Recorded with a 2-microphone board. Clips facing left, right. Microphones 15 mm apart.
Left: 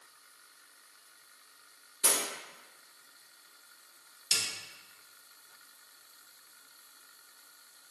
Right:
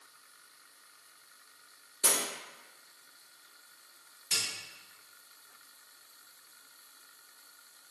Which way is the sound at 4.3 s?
55° left (ahead or behind).